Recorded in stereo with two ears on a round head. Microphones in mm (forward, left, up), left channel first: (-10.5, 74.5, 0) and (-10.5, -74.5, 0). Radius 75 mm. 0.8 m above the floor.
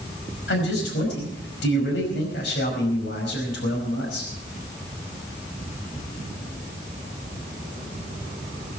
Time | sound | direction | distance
0.5 | a man speaking | 80° left | 5.5 m